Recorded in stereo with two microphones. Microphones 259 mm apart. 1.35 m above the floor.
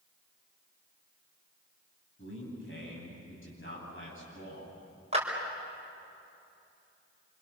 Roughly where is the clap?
Right.